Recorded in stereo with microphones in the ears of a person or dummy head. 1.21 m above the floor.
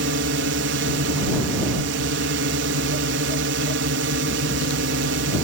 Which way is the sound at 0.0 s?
60° right (ahead or behind).